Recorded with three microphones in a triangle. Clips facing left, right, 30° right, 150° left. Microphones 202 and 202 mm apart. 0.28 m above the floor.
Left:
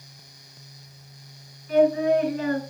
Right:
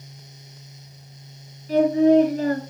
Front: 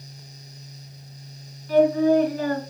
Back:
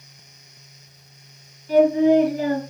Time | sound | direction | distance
1.7 | singing | 140° right | 3 m